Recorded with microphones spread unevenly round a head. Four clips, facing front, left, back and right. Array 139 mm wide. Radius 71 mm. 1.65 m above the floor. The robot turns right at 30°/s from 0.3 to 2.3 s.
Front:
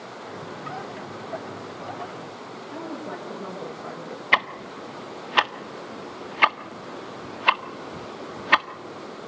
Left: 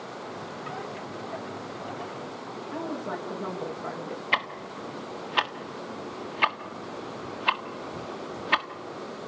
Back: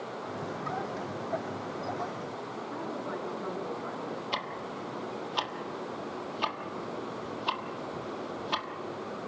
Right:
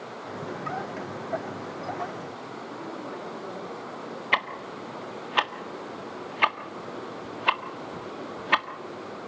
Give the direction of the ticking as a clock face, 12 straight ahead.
1 o'clock.